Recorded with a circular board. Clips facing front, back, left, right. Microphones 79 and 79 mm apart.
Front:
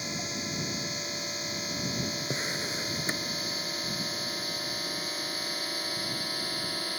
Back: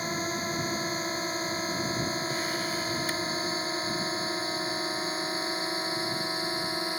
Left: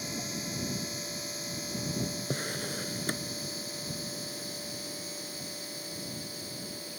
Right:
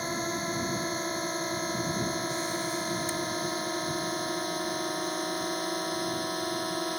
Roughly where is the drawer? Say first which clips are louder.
Back 3 dB, right 4 dB; ahead left.